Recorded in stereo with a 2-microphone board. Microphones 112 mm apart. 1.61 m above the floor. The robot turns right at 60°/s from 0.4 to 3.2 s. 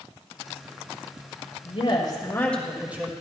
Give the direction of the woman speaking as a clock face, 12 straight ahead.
8 o'clock.